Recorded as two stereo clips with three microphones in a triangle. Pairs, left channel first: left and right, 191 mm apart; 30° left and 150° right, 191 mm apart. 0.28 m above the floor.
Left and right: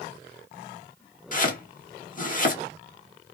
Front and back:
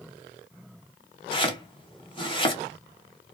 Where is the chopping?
80° left, 0.9 m.